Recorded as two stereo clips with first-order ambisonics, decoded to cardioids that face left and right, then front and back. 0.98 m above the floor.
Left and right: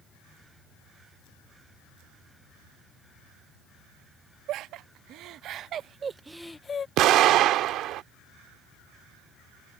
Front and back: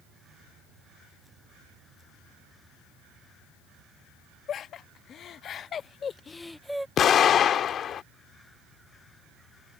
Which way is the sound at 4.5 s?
55° right.